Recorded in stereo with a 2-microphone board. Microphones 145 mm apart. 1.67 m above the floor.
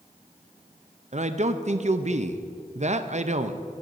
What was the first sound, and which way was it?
A man speaking, 50° right (ahead or behind).